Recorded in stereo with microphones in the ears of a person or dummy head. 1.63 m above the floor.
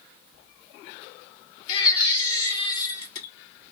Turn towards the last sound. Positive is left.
turn(degrees=35)  # may be behind; listen again after turning